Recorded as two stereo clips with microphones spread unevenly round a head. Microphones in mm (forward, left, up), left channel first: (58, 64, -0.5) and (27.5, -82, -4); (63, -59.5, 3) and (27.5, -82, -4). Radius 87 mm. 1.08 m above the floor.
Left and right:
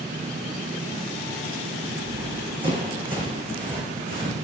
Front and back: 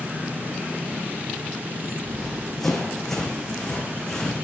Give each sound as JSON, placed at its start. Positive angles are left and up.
{"t": 2.0, "sound": "running footsteps", "azimuth_deg": -50, "distance_m": 3.0}